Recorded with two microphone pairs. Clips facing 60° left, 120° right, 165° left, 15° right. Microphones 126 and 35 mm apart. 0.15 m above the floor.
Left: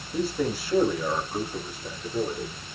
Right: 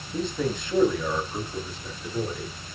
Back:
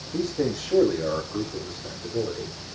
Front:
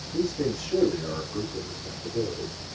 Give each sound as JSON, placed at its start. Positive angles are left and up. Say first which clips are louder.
{"t": 0.1, "sound": "a man speaking", "louder": "left 1 dB, back 1 dB", "azimuth_deg": 145, "distance_m": 8.0}